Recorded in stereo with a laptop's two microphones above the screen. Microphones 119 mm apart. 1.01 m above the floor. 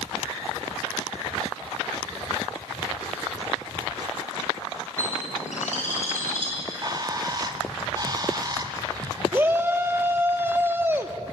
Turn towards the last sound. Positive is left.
turn(degrees=-20)  # may be behind; listen again after turning